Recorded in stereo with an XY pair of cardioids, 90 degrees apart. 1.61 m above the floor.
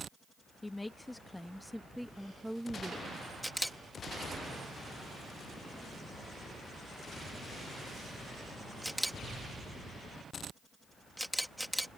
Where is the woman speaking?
15° left; by 3.2 s 15° right.